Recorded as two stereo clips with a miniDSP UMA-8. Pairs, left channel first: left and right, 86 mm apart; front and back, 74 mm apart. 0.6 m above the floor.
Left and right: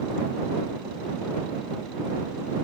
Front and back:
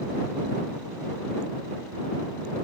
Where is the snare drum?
I don't hear a snare drum.